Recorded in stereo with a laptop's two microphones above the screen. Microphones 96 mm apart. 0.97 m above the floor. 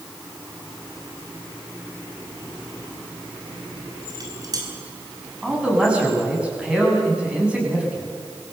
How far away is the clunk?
I don't hear a clunk.